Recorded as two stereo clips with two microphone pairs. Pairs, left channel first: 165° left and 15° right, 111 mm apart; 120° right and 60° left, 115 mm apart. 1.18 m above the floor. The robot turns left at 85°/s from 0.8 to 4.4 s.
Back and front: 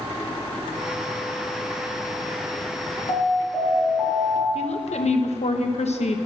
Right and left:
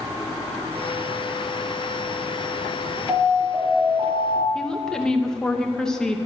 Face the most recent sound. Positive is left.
turn(degrees=155)